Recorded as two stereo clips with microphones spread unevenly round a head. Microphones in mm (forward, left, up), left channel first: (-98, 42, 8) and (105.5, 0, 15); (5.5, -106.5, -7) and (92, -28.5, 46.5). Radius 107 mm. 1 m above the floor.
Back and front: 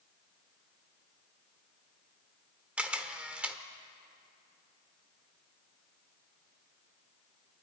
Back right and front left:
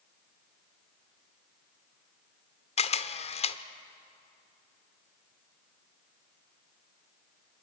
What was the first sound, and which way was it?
A camera shutter, 95° right.